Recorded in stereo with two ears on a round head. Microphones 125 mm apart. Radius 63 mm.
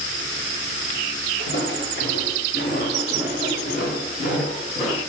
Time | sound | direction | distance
1.4 | footsteps | 80° left | 7.5 m